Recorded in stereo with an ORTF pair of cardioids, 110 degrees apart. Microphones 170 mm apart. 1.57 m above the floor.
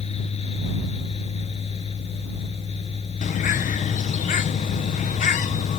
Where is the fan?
35° left.